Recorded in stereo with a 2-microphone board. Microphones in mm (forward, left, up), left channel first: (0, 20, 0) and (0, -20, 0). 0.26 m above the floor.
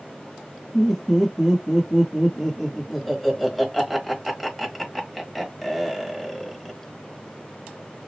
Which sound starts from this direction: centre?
Laughter, at 0.7 s.